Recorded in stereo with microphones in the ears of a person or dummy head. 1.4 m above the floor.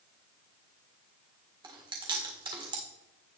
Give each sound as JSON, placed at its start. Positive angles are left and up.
{"t": 1.6, "sound": "chewing", "side_deg": -20, "distance_m": 1.6}